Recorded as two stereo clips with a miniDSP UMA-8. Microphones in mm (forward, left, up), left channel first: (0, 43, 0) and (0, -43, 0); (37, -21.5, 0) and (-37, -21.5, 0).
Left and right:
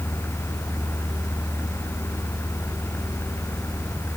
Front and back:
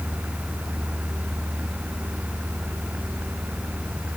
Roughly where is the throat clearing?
I don't hear throat clearing.